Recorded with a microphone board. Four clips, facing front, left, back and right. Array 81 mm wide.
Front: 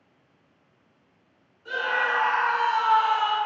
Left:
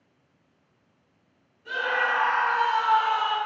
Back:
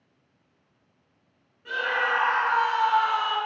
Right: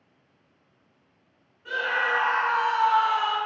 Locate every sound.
1.6 s a scream: 160° right, 1.8 m; by 3.4 s 95° left, 1.5 m